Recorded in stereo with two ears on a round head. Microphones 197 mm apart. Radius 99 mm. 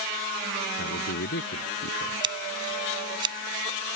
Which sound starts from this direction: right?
Scissors, at 2.2 s.